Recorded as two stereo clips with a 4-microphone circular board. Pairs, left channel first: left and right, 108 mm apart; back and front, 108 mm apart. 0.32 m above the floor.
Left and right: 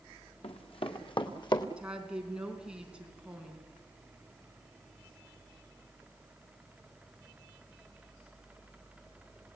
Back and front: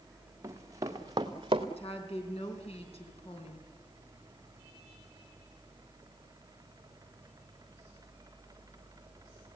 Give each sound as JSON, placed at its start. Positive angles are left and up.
{"t": 0.4, "sound": "running footsteps", "azimuth_deg": 65, "distance_m": 2.5}
{"t": 1.8, "sound": "a woman speaking", "azimuth_deg": -170, "distance_m": 4.0}